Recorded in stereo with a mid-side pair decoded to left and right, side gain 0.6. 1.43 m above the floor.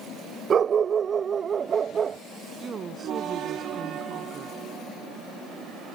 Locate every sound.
0.5 s a dog barking: 40° right; by 2.2 s 35° right
2.6 s a woman speaking: 40° right